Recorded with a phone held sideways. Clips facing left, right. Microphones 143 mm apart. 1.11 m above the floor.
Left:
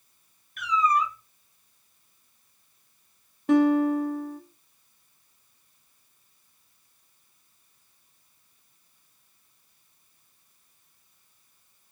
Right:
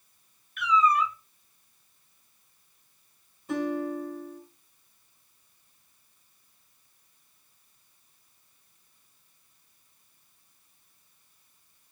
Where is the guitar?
75° left (ahead or behind), 0.6 m.